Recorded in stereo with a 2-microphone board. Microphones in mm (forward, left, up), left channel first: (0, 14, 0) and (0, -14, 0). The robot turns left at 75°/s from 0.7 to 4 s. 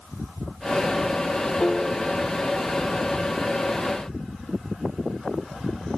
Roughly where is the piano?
Ahead left.